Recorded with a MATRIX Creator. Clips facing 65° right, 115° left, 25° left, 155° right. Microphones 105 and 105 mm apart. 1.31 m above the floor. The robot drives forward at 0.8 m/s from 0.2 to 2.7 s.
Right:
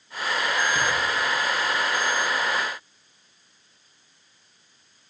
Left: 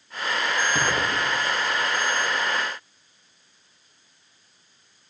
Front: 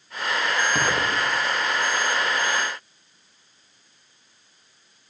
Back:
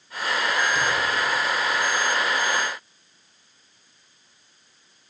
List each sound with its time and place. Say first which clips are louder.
0.8 s an explosion: left 1 dB, front 1 dB; 55° left, 0.6 m; by 1.9 s 140° left, 0.8 m